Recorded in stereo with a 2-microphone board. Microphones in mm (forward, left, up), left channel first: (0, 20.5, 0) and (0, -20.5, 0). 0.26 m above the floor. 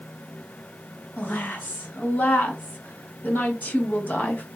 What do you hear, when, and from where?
1.2 s a woman speaking: 50° left (ahead or behind), 1.6 m